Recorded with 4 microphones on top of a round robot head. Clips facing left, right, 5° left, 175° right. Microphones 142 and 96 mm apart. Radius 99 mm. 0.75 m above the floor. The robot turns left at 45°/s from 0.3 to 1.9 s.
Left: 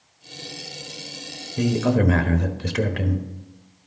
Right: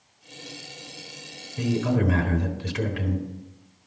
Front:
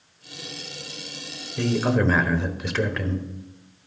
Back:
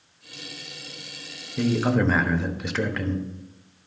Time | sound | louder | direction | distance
1.6 | a man speaking | left 4 dB, even | 110° left | 1.2 m